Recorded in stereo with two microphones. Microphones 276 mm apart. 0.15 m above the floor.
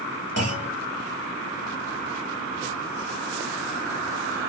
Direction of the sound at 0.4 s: 60° right (ahead or behind).